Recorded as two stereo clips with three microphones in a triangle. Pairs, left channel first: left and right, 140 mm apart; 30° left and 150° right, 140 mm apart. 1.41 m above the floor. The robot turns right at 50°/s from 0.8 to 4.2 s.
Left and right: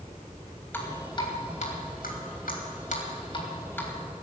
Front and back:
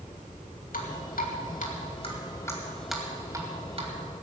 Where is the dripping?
15° left, 2.5 m; by 3.9 s 170° left, 2.5 m.